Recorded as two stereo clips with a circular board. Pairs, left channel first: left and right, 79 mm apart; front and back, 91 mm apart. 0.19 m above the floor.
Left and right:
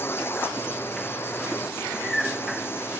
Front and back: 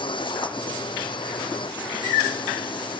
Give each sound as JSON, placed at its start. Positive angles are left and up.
{"t": 0.0, "sound": "a drone", "azimuth_deg": 30}